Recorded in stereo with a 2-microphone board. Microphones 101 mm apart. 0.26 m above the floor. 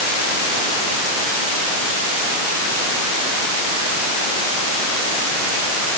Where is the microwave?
I don't hear a microwave.